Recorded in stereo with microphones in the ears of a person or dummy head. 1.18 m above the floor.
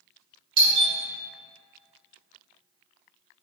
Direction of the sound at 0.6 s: 25° right (ahead or behind).